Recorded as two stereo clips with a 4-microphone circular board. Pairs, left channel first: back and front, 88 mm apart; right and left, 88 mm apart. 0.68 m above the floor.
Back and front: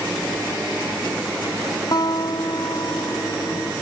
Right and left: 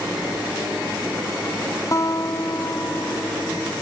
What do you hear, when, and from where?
1.9 s a guitar: 140° right